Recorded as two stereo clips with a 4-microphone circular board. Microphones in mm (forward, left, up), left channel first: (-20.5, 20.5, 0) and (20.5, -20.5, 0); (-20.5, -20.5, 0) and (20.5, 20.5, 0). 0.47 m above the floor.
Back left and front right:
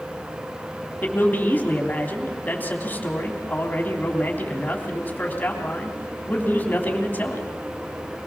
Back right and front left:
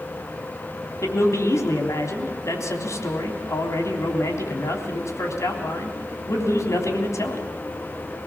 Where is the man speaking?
165° right, 3.5 m.